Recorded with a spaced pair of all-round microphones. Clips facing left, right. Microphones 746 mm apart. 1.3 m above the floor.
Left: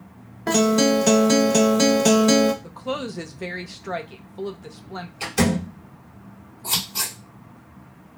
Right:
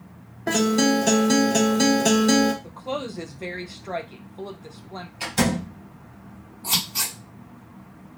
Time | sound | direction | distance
0.5 | a guitar | 40° left (ahead or behind) | 0.6 m
2.6 | a woman speaking | 50° left (ahead or behind) | 0.5 m
5.2 | a door slam | 10° right (ahead or behind) | 1.4 m
6.6 | scissors | 20° right (ahead or behind) | 1.4 m